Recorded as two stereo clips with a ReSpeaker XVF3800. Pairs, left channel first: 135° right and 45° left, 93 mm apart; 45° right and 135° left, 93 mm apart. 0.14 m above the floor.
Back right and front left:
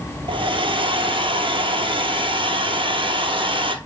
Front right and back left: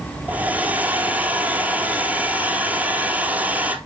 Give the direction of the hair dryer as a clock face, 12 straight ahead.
10 o'clock.